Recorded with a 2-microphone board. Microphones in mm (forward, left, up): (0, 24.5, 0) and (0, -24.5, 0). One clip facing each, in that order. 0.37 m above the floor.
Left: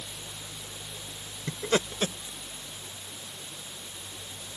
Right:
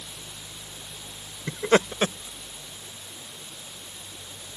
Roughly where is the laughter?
Right.